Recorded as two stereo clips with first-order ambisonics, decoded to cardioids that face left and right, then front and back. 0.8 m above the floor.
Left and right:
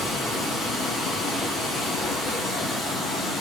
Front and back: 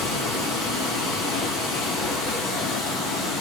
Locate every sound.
0.0 s running water: 20° left, 1.9 m